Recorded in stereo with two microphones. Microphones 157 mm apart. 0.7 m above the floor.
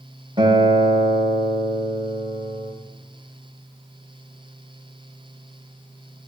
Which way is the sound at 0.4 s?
35° right (ahead or behind).